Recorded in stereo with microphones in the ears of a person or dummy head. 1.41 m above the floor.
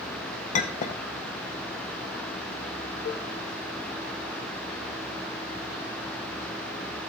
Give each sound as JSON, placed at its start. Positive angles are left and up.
{"t": 0.5, "sound": "a clink", "side_deg": 40, "distance_m": 1.1}
{"t": 3.0, "sound": "a cowbell", "side_deg": 35, "distance_m": 0.9}